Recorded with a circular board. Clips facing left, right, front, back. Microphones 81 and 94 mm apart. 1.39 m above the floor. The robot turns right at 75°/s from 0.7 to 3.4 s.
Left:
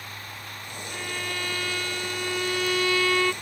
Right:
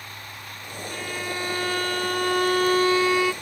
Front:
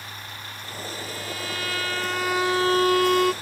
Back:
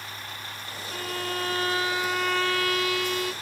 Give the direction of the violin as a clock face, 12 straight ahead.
6 o'clock.